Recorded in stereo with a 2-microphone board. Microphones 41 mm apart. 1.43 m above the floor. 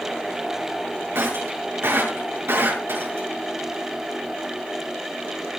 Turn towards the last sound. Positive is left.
turn(degrees=-75)  # may be behind; listen again after turning